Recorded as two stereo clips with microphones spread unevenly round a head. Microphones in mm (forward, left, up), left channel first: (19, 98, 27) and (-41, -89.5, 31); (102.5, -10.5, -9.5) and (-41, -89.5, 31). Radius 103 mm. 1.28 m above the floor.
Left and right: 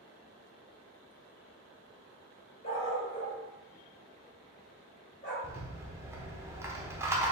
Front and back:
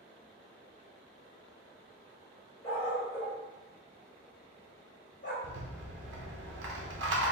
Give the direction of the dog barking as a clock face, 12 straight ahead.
8 o'clock.